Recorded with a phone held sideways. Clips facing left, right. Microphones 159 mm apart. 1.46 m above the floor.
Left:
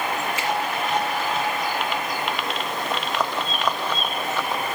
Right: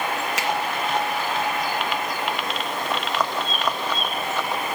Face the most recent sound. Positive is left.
turn(degrees=-90)